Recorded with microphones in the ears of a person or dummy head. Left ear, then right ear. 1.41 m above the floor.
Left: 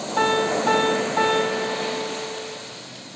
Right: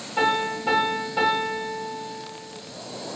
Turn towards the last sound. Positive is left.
turn(degrees=55)  # may be behind; listen again after turning